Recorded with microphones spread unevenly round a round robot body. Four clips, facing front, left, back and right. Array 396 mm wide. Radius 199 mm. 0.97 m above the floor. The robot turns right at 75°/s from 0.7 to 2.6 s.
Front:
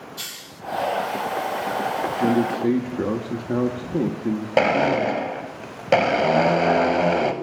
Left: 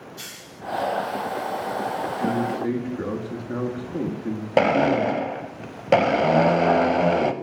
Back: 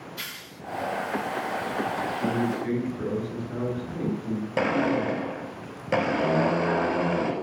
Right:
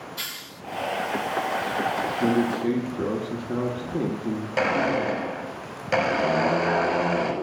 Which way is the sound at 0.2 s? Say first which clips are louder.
Right 2 dB, front 1 dB; 90° right.